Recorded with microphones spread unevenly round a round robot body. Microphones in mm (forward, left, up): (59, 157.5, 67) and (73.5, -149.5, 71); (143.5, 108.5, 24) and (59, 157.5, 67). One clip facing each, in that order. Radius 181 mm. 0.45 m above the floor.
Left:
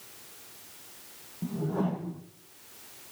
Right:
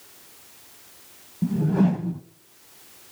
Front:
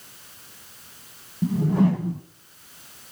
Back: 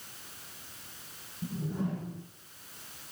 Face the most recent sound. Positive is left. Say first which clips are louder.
# right 9 dB, front 14 dB
turn(degrees=-35)